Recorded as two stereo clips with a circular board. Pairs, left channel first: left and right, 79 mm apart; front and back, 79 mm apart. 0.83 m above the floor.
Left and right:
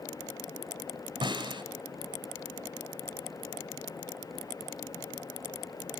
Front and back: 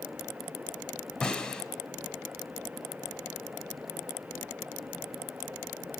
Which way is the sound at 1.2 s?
75° right.